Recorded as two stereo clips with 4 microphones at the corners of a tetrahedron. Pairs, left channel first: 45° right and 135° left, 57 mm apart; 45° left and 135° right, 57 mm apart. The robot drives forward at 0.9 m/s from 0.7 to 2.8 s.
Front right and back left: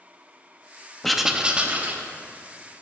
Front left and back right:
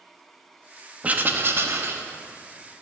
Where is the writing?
120° right, 0.6 m; by 2.0 s 170° right, 1.2 m.